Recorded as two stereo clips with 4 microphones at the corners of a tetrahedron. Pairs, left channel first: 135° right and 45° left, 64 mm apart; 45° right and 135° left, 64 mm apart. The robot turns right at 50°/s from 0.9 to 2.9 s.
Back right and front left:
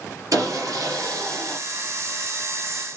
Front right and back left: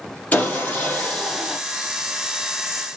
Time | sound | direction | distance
0.3 | sawing | 20° left | 3 m